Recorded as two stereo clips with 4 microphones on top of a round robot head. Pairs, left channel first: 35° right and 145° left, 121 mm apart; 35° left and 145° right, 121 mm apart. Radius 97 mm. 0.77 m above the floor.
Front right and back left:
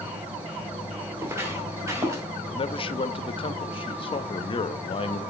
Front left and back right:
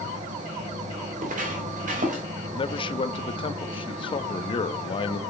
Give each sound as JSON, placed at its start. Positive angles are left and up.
{"t": 0.0, "sound": "an insect", "azimuth_deg": -135, "distance_m": 5.0}
{"t": 1.2, "sound": "footsteps", "azimuth_deg": -140, "distance_m": 7.0}
{"t": 2.5, "sound": "a man speaking", "azimuth_deg": 0, "distance_m": 1.0}